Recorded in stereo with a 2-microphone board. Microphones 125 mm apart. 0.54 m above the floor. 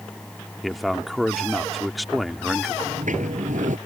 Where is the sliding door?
85° right.